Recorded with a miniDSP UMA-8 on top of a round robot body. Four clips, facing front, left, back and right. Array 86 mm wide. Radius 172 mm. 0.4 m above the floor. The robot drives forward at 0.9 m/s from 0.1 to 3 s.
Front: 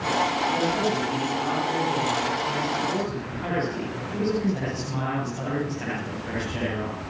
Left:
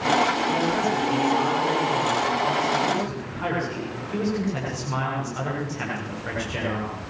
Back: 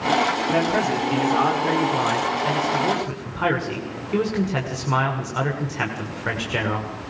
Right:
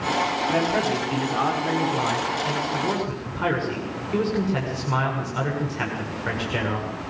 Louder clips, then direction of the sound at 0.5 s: Even, back 3 dB; 160° right.